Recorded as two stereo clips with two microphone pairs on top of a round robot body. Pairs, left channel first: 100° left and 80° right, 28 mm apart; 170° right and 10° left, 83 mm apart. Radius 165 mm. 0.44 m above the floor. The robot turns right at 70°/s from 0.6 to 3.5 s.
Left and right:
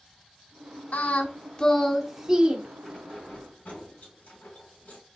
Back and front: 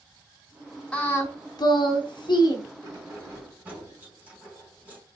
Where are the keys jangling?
35° left, 3 m; by 5.0 s 80° left, 3 m.